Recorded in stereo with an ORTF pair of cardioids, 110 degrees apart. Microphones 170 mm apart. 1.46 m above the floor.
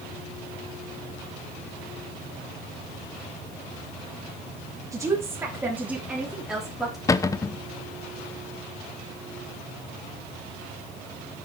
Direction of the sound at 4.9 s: 20° right.